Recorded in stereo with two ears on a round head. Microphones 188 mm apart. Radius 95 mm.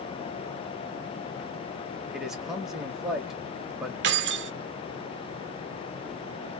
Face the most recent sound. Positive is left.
turn(degrees=-55)  # may be behind; listen again after turning